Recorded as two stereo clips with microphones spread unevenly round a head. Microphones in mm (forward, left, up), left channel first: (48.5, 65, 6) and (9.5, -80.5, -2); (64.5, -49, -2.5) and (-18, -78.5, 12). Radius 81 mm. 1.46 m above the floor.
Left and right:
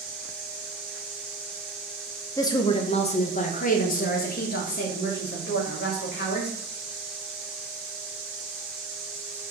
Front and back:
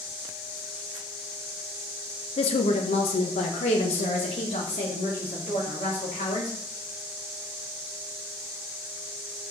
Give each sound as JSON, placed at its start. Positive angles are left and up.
{"t": 2.4, "sound": "a woman speaking", "azimuth_deg": 5, "distance_m": 0.8}